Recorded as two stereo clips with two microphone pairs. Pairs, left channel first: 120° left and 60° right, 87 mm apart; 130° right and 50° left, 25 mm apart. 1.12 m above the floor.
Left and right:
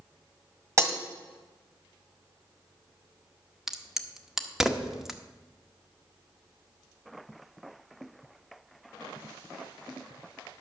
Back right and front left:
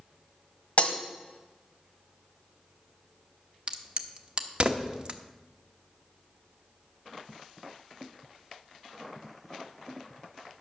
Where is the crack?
20° left, 0.8 m.